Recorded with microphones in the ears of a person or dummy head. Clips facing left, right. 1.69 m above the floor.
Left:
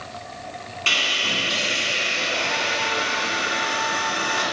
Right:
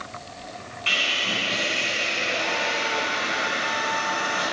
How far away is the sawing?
About 2.5 m.